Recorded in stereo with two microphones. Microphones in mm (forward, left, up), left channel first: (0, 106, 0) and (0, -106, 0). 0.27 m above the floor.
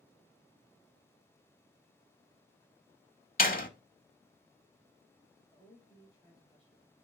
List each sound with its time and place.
3.4 s a door slam: 40° left (ahead or behind), 0.9 m
5.5 s a woman speaking: centre (ahead or behind), 3.5 m